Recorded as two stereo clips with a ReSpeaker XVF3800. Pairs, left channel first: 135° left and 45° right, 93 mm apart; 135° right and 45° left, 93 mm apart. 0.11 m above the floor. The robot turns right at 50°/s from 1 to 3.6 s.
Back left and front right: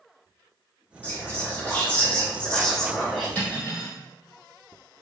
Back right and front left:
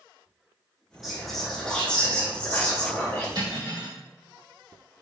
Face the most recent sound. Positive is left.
turn(degrees=85)